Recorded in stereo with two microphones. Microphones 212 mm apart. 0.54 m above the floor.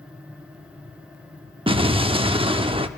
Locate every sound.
1.7 s an explosion: 25° right (ahead or behind), 0.7 m